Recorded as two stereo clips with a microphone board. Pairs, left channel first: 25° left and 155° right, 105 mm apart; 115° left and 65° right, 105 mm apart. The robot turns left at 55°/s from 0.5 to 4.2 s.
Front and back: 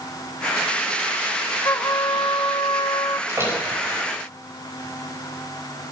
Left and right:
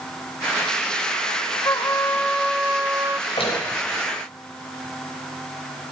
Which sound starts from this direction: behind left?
A door slam, at 3.3 s.